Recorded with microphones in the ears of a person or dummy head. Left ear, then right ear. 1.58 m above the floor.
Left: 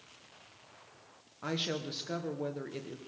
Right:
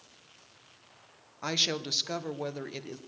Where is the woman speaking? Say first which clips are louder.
Right 6 dB; 35° right (ahead or behind), 1.1 m.